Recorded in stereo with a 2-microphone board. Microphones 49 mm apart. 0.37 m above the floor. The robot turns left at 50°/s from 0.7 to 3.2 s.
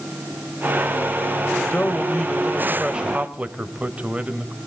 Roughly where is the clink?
No clink in this recording.